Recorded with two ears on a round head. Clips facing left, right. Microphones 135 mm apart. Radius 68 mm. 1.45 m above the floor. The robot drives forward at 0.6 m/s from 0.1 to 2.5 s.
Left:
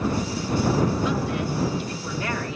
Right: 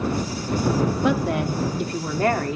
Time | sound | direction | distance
1.0 | a woman speaking | 50° right (ahead or behind) | 3 m